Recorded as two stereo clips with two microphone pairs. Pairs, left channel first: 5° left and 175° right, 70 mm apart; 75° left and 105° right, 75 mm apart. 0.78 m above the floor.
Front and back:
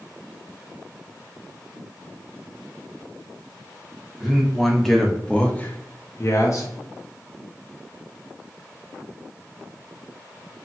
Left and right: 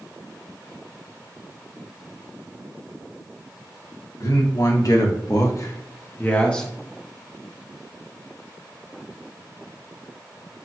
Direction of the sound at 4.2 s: 100° left.